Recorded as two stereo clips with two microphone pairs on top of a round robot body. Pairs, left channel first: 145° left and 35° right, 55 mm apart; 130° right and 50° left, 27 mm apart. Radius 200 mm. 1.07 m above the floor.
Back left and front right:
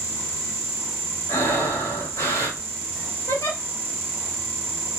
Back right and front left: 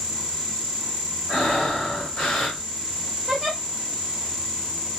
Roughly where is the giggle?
Behind left.